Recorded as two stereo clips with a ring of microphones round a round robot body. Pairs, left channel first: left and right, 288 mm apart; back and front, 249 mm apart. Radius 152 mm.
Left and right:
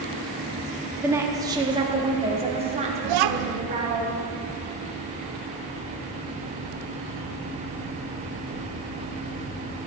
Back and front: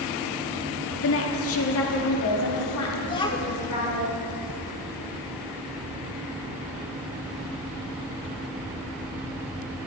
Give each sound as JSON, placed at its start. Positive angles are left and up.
{"t": 1.0, "sound": "a woman speaking", "azimuth_deg": -170, "distance_m": 1.4}
{"t": 3.0, "sound": "a child speaking", "azimuth_deg": -105, "distance_m": 0.8}